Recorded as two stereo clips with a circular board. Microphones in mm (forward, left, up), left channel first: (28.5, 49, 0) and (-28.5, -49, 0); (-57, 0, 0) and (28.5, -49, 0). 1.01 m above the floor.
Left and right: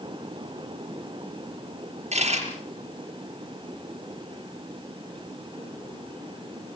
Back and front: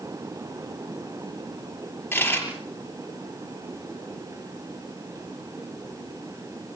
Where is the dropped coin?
140° right, 6.5 m.